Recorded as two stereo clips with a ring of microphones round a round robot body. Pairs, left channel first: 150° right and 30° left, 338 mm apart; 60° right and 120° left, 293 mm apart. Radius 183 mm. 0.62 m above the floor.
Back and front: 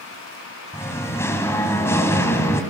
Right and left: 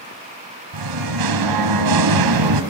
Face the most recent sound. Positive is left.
turn(degrees=125)